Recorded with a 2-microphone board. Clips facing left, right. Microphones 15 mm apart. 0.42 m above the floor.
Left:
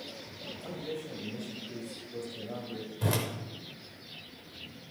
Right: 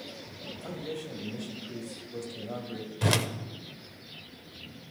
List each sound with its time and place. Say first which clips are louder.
0.6 s a man speaking: right 1 dB; 30° right (ahead or behind), 1.9 m
3.0 s a whoosh: right 5 dB; 45° right (ahead or behind), 0.7 m